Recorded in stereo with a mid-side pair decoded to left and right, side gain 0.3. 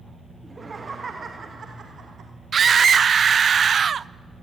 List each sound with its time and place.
0.4 s laughter: 35° right, 2.5 m; by 2.3 s 70° right, 2 m
2.5 s a scream: 60° right, 0.5 m